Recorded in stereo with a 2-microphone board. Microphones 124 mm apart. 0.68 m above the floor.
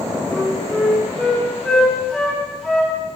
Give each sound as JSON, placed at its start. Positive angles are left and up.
{"t": 0.3, "sound": "a flute", "side_deg": 5, "distance_m": 5.0}